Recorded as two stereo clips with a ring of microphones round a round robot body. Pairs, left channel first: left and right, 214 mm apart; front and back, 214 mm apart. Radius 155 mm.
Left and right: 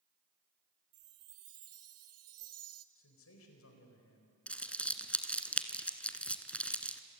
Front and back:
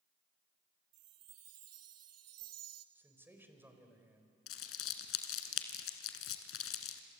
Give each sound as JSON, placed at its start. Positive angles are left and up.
{"t": 0.9, "sound": "a chime", "azimuth_deg": -135, "distance_m": 0.5}
{"t": 3.0, "sound": "a man speaking", "azimuth_deg": 100, "distance_m": 4.5}
{"t": 4.5, "sound": "crumpling", "azimuth_deg": 5, "distance_m": 1.9}